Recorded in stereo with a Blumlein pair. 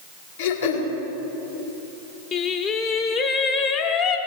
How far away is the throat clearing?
About 2.0 m.